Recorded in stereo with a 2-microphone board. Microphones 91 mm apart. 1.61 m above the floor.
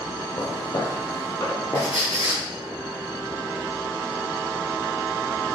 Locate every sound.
0.4 s footsteps: 45° left (ahead or behind), 2.5 m; by 1.9 s 30° left (ahead or behind), 3 m
1.8 s a squeak: 70° left (ahead or behind), 3.5 m